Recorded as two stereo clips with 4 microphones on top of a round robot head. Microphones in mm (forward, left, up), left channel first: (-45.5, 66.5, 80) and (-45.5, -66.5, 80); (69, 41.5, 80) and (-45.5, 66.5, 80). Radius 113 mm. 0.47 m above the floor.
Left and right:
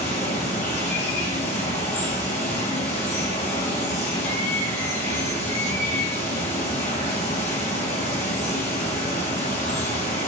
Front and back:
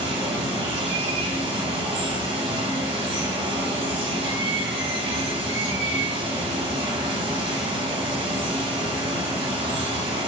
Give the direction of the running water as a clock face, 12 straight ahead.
8 o'clock.